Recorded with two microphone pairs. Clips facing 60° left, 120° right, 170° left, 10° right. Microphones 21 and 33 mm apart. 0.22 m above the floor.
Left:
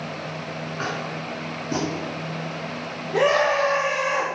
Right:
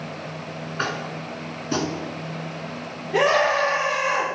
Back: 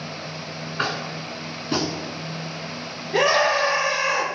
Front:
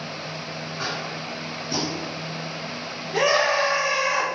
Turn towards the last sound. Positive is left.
turn(degrees=-150)